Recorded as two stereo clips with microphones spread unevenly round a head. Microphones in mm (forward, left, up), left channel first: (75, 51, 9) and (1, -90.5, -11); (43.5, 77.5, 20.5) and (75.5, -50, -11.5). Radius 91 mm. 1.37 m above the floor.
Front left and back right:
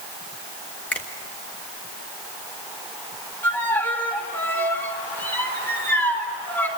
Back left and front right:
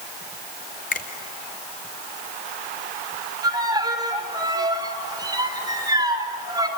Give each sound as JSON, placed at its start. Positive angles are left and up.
{"t": 0.9, "sound": "a finger snap", "azimuth_deg": 145, "distance_m": 1.5}
{"t": 3.4, "sound": "a violin", "azimuth_deg": -15, "distance_m": 4.0}